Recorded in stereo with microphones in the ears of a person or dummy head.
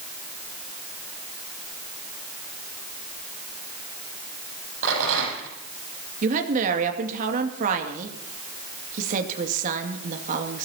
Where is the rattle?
75° right (ahead or behind), 9.5 m.